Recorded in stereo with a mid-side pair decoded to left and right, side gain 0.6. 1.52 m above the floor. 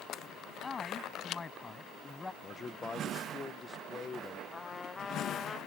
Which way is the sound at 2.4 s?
25° left.